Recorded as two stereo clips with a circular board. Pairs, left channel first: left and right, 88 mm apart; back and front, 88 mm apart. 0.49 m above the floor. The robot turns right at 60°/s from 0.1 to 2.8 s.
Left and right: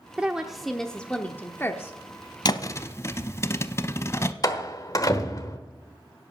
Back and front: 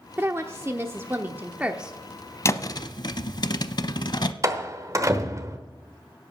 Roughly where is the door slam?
Ahead left.